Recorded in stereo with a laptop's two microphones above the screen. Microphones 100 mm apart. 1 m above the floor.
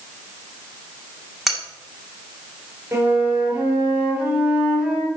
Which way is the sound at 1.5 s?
Centre (ahead or behind).